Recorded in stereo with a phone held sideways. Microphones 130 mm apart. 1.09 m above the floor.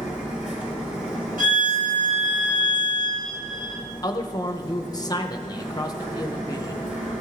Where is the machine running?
10° right (ahead or behind), 5 m.